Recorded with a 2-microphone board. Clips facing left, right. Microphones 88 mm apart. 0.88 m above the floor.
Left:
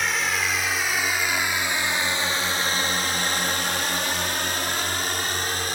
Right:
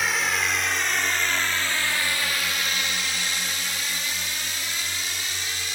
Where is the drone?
Centre (ahead or behind); by 5.8 s 55° left (ahead or behind).